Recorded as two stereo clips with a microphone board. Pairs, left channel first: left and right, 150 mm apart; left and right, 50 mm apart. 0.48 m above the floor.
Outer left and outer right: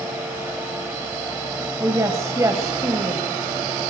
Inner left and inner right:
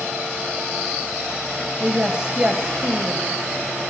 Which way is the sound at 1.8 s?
20° right (ahead or behind).